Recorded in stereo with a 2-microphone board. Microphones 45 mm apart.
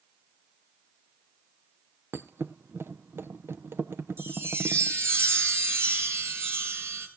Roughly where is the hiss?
I don't hear a hiss.